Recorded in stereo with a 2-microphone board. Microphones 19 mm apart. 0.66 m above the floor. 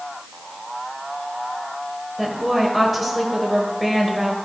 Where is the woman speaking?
5° right (ahead or behind), 2.5 m.